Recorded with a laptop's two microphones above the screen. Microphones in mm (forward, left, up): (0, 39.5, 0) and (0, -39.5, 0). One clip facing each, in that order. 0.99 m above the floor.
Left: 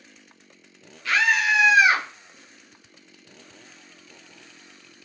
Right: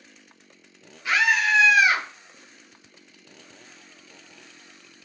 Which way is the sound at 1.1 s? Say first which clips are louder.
Even; 20° right (ahead or behind).